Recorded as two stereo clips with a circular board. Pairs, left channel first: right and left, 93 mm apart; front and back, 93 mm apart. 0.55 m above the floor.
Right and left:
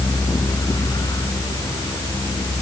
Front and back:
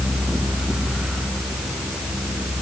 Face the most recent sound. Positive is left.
No sound to turn to.